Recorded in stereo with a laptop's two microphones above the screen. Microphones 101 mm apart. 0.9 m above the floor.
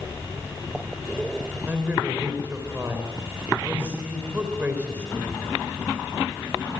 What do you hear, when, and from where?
1.7 s a man speaking: 20° right (ahead or behind), 3.5 m